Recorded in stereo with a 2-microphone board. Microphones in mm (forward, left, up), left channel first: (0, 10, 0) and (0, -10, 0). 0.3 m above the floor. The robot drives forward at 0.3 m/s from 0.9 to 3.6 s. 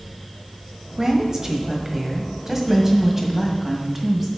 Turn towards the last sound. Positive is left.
turn(degrees=-20)  # may be behind; listen again after turning